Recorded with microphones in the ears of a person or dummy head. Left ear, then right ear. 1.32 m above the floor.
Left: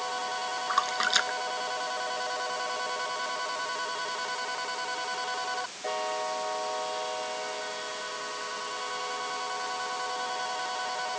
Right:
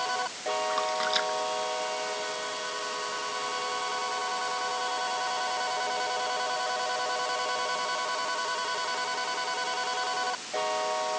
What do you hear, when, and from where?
0.7 s a splash: 40° left (ahead or behind)